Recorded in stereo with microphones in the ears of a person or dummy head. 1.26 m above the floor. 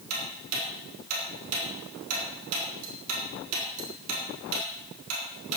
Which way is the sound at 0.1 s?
80° right.